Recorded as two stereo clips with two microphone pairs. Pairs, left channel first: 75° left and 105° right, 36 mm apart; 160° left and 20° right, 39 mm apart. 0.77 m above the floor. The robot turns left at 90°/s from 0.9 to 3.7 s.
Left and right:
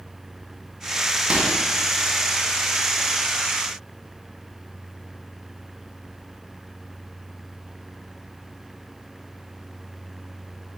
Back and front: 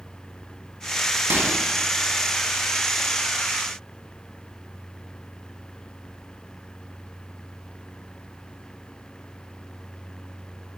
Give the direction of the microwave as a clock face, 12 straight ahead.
1 o'clock.